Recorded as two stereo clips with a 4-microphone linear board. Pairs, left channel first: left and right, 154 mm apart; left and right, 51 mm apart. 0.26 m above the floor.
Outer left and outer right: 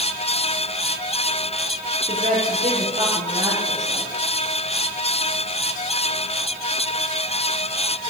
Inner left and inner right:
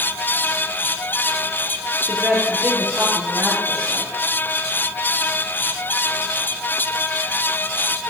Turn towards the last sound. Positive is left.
turn(degrees=-45)  # may be behind; listen again after turning